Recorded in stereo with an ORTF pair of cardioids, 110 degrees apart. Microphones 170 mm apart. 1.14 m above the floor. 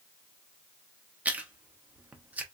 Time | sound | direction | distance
1.2 | chewing | 10° right | 0.7 m